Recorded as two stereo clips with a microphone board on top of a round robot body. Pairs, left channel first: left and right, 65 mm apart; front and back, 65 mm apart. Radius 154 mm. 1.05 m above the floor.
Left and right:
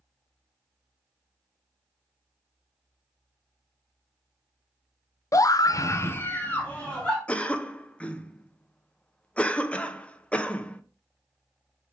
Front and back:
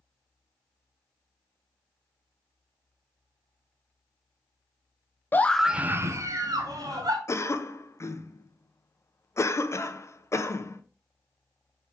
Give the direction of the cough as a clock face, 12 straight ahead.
11 o'clock.